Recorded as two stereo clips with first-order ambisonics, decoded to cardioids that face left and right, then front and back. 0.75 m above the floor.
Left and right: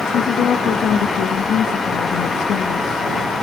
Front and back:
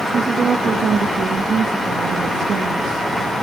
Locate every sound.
0.1 s a woman speaking: 125° left, 1.2 m